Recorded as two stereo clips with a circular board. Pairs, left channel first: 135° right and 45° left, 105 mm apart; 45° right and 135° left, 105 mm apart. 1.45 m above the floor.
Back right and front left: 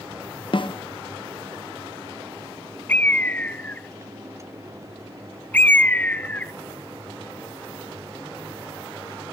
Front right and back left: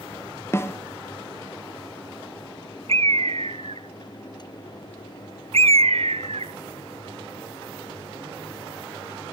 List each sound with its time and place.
0.5 s a snare drum: 110° right, 0.9 m
2.9 s a bird: 150° left, 0.7 m